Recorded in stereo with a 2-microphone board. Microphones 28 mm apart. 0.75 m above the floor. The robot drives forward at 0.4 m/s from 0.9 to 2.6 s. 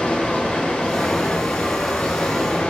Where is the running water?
50° left (ahead or behind), 0.8 m; by 2.7 s 55° left (ahead or behind), 0.8 m.